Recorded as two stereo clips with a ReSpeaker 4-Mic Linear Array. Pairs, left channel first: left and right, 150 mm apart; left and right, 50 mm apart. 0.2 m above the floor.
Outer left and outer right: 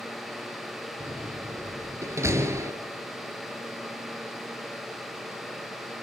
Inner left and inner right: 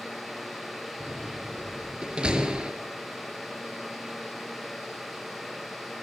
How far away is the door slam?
About 3 m.